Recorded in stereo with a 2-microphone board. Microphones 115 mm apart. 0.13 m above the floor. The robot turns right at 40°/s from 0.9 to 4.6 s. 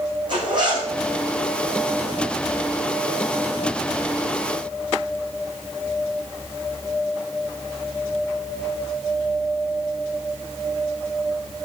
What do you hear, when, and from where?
0.3 s a zipper: 40° right (ahead or behind), 8.5 m